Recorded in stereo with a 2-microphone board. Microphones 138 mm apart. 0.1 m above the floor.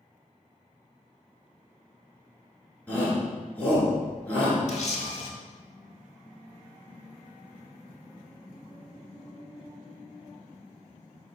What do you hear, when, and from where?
2.9 s a shout: 10° left (ahead or behind), 1.3 m
4.7 s a camera shutter: 60° left (ahead or behind), 0.6 m